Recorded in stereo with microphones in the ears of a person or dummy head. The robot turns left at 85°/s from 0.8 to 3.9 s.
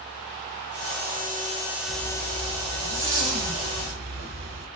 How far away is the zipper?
About 1.5 m.